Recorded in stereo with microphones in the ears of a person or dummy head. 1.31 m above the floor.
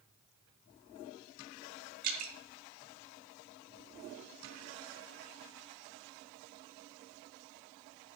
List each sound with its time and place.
2.0 s dripping: 55° right (ahead or behind), 2.5 m